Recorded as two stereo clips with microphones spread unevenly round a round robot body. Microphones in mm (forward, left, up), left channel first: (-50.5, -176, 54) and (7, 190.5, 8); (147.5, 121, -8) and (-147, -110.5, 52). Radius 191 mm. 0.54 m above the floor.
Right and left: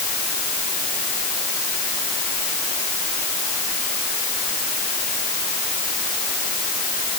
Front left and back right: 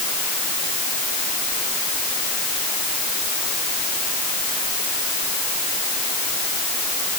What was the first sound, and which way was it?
Only background noise.